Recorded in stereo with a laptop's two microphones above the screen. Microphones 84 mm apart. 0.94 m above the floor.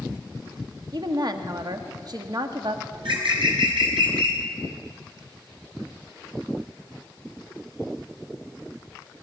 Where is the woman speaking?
55° right (ahead or behind), 1.2 m.